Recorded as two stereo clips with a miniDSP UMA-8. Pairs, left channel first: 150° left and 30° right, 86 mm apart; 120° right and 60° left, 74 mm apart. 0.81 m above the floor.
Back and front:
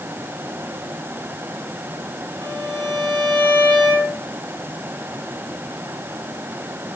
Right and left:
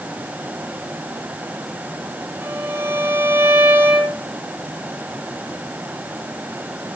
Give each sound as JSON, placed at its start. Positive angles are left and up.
{"t": 2.4, "sound": "a violin", "azimuth_deg": 0, "distance_m": 9.0}